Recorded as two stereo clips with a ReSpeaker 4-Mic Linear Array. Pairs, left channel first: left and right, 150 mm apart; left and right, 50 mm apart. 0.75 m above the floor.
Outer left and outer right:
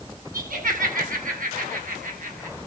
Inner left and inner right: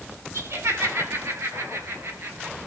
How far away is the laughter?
About 7 m.